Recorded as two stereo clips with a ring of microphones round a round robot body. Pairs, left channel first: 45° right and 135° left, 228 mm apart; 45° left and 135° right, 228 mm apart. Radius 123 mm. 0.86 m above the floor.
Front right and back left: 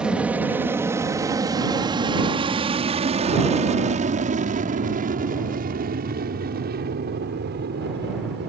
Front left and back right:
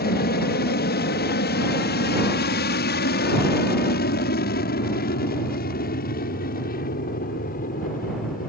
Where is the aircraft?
50° left; by 8.5 s 95° left.